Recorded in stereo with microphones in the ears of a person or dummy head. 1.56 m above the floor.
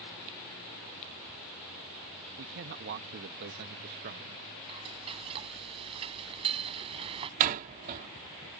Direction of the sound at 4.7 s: 30° right (ahead or behind).